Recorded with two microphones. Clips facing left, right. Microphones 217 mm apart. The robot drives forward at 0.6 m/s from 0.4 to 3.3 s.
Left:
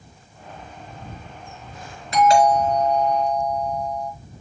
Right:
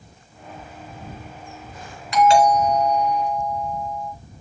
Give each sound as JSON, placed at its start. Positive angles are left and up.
{"t": 2.1, "sound": "a doorbell", "side_deg": 35, "distance_m": 4.0}